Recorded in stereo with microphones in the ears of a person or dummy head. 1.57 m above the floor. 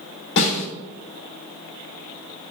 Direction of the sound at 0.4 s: 70° left (ahead or behind).